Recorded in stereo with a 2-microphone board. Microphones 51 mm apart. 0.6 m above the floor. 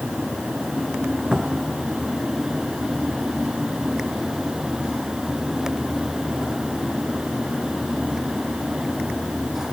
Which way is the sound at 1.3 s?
25° right (ahead or behind).